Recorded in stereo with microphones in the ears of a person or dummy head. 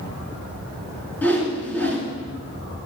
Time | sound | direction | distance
1.2 | a whoosh | 10° left (ahead or behind) | 3.5 m